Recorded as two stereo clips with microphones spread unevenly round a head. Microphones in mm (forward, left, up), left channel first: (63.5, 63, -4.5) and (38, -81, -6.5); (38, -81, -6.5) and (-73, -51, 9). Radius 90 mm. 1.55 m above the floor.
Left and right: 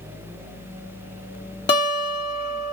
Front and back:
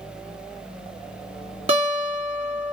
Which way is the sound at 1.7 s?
135° left.